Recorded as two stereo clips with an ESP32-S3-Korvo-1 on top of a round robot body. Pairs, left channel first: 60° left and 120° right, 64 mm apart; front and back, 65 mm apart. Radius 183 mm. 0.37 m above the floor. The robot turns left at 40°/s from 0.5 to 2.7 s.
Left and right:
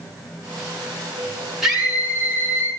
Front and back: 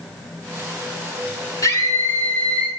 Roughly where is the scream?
Ahead right.